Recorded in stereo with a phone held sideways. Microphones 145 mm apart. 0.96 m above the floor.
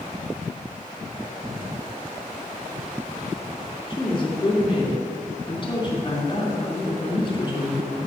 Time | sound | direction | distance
3.9 | a woman speaking | 35° left (ahead or behind) | 3 m